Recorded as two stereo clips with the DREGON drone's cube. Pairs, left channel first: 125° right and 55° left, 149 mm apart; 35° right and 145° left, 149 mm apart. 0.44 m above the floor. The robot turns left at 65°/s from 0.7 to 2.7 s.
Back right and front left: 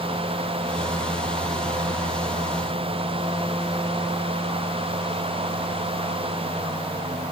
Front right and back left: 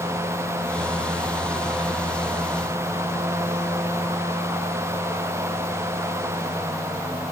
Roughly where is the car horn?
No car horn in this recording.